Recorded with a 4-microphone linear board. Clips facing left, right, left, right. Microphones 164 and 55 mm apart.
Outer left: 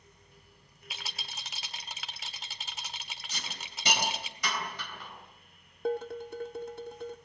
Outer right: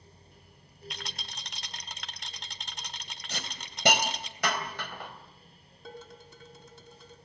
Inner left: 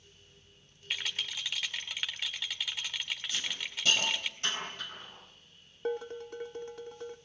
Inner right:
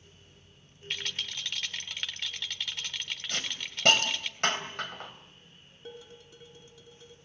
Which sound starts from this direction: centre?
A rattle, at 0.9 s.